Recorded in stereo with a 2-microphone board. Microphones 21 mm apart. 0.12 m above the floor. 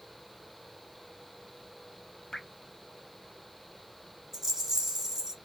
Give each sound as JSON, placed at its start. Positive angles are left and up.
{"t": 2.3, "sound": "dripping", "side_deg": 55, "distance_m": 0.7}
{"t": 4.3, "sound": "a rattle", "side_deg": -20, "distance_m": 1.0}